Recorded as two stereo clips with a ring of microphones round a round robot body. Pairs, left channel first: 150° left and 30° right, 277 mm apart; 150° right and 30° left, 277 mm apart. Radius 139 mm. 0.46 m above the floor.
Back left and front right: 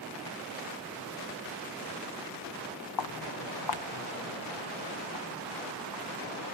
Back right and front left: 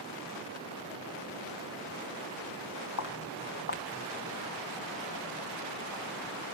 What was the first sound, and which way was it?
Footsteps, 170° left.